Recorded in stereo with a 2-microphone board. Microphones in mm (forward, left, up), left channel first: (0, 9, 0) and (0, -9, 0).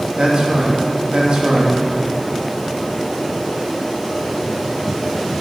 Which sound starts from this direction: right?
A man speaking, at 0.2 s.